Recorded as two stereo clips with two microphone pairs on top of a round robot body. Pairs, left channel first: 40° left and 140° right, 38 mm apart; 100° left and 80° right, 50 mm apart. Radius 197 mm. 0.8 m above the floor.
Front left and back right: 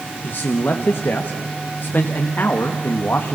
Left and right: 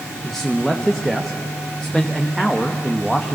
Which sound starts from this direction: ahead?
A man speaking, at 0.2 s.